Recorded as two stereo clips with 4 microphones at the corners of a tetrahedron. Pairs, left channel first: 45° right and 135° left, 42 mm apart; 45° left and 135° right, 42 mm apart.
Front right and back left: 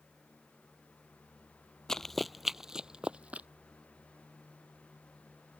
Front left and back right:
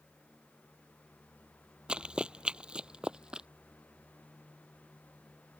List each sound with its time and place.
1.9 s running footsteps: 105° right; by 3.5 s 165° left